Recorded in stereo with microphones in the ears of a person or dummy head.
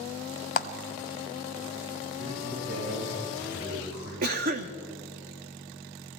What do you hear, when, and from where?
0.6 s a clap: 45° left (ahead or behind), 0.5 m
2.2 s a man speaking: 85° right, 8 m
4.2 s a cough: 50° right (ahead or behind), 0.8 m